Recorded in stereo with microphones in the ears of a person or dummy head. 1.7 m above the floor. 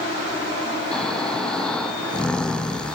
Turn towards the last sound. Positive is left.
turn(degrees=5)  # may be behind; listen again after turning